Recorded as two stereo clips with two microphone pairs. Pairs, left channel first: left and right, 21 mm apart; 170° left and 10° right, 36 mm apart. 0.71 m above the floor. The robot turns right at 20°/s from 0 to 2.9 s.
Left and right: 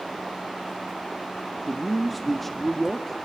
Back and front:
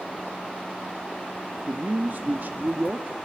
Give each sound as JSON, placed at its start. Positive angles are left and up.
{"t": 1.7, "sound": "a man speaking", "azimuth_deg": -10, "distance_m": 0.9}